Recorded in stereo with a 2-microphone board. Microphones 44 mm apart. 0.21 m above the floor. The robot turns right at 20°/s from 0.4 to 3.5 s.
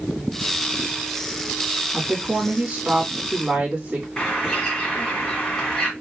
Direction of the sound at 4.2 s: 10° left (ahead or behind).